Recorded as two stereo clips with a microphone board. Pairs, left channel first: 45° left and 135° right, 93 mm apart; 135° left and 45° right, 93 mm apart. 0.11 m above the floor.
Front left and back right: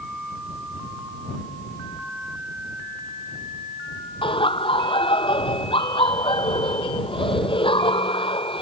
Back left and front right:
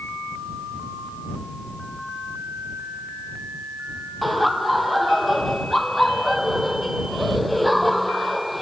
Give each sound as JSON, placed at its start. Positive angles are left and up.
{"t": 4.2, "sound": "laughter", "azimuth_deg": 45}